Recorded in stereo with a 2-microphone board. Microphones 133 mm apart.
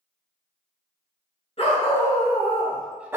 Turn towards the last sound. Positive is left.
turn(degrees=-20)  # may be behind; listen again after turning